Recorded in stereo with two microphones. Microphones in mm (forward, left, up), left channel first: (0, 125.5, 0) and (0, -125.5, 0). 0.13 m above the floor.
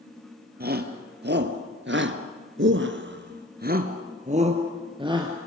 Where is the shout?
40° right (ahead or behind), 2.5 m; by 5.3 s 15° right (ahead or behind), 2.5 m.